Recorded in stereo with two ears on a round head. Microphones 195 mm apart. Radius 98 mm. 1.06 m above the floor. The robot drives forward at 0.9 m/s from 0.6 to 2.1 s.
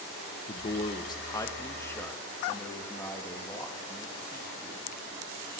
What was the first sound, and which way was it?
A man speaking, 30° left (ahead or behind).